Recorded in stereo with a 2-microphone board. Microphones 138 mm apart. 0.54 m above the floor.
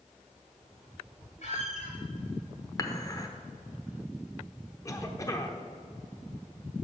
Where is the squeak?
55° left (ahead or behind), 3.5 m.